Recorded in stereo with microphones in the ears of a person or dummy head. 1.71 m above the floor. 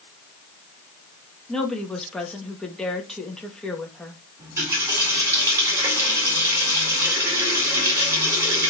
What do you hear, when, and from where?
1.5 s a woman speaking: centre (ahead or behind), 2.0 m
4.4 s a running tap: 20° right (ahead or behind), 4 m